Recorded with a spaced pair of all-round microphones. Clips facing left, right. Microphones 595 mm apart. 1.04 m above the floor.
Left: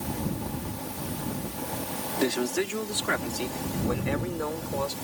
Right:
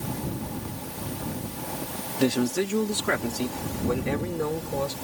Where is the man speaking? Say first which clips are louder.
Right 3 dB; 60° right (ahead or behind).